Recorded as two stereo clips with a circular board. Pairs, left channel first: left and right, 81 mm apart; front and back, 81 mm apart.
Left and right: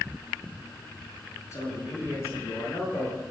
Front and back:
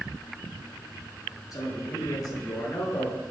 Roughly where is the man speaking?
Ahead left.